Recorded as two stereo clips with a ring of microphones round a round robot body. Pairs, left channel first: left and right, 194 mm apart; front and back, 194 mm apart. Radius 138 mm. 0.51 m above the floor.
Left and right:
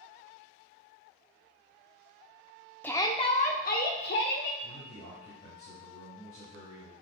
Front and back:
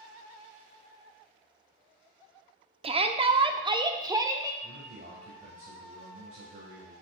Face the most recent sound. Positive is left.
turn(degrees=145)